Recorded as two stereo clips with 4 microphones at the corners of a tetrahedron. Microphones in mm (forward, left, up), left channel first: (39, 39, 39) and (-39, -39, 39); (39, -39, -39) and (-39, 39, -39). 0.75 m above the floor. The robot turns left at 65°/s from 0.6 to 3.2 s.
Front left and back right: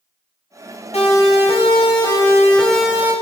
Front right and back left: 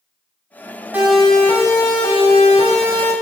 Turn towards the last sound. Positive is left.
turn(degrees=-70)